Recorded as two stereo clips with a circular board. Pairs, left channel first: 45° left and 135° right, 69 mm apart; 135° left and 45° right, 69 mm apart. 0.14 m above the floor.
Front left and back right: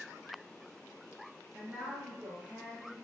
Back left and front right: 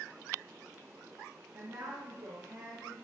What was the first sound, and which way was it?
A woman speaking, 65° right.